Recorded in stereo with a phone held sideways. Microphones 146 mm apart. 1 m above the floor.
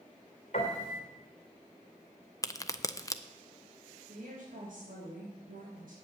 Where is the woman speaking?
70° right (ahead or behind), 3.5 m.